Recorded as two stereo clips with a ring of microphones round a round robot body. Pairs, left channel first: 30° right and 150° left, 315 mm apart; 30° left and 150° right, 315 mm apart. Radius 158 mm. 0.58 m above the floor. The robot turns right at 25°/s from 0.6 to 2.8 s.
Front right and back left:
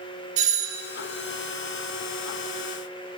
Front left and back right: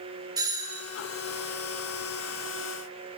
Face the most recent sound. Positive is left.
turn(degrees=-155)